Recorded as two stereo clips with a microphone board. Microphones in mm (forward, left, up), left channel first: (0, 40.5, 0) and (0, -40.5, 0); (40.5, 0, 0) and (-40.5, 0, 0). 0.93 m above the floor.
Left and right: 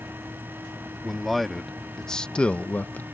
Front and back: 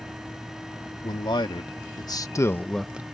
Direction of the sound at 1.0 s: Straight ahead.